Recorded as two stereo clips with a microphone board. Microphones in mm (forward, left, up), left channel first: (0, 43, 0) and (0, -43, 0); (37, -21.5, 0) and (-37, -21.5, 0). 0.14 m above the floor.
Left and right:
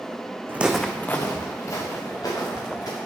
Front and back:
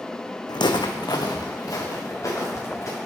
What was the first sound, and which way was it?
Footsteps, 25° right.